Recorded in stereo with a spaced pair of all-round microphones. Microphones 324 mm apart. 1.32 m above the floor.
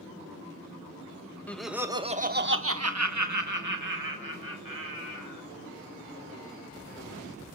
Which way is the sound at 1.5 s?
5° left (ahead or behind).